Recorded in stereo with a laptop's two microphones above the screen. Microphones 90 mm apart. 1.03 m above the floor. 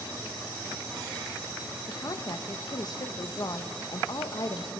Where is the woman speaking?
45° left (ahead or behind), 1.0 m.